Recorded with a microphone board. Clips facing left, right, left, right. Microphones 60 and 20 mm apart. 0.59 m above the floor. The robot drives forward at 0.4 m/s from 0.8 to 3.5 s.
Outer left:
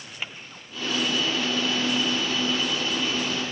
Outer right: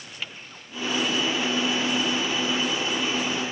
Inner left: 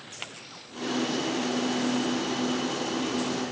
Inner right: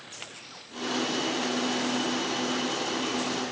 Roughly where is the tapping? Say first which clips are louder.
Outer left 1 dB, inner left 5 dB; centre.